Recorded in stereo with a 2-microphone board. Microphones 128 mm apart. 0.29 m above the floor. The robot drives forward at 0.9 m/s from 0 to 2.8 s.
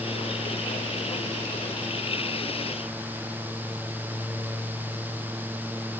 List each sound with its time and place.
Only background noise.